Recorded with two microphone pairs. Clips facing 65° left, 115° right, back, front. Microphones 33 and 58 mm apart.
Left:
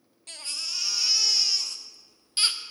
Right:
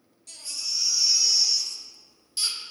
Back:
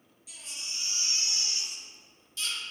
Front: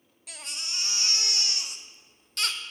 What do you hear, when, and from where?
0.3 s a baby crying: 20° left, 0.5 m